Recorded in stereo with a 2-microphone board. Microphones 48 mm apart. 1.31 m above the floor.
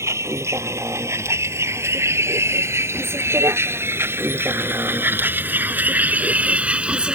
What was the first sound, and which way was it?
A vehicle, 75° right (ahead or behind).